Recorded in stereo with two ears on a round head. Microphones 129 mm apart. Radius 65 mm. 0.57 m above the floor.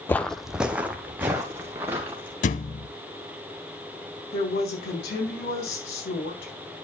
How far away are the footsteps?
About 0.6 m.